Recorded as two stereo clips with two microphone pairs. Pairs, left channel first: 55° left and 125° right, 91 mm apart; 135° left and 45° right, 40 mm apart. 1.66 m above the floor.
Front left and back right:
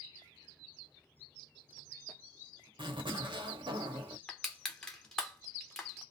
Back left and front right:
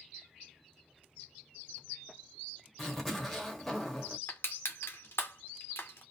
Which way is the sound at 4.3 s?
135° left.